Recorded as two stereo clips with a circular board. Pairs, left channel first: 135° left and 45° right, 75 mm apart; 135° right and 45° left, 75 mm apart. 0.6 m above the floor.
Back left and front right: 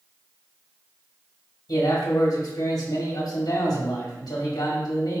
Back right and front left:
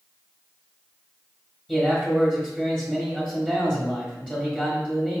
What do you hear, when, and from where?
1.7 s a man speaking: 125° left, 1.0 m